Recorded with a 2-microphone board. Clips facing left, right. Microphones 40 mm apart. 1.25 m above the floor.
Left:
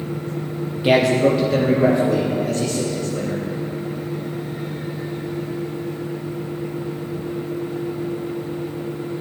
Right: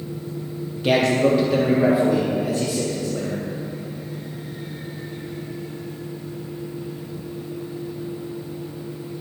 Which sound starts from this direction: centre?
A man speaking, at 0.8 s.